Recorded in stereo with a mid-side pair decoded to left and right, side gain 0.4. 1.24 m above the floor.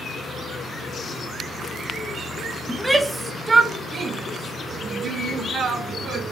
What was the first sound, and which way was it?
A shout, 5° right.